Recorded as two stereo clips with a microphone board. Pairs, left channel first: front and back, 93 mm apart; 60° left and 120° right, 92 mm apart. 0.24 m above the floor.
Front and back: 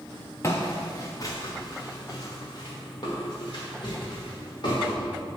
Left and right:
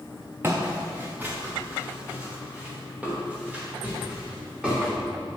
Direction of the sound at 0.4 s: 55° right.